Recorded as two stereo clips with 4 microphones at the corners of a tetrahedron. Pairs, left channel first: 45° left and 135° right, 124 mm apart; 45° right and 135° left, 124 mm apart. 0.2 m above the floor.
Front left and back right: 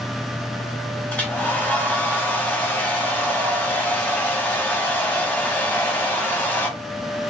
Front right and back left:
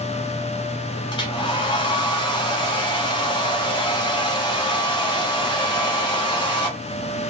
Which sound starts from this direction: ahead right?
A hair dryer, at 1.1 s.